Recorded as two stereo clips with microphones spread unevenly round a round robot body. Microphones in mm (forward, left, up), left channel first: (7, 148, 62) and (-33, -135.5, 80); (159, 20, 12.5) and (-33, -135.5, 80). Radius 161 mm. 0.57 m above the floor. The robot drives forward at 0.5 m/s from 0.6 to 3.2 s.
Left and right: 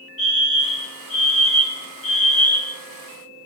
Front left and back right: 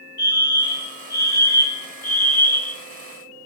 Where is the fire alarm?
60° left, 3.5 m; by 2.8 s 80° left, 3.5 m.